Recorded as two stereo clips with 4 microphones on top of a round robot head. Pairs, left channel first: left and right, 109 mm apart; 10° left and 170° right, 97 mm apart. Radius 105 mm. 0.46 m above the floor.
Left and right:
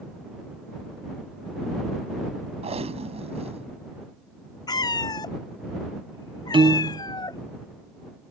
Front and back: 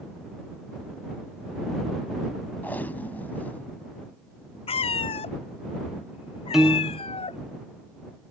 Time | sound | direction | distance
2.6 | tape being pulled | 65° right | ?
4.7 | a cat meowing | 35° left | ?
6.5 | a piano | 85° right | ?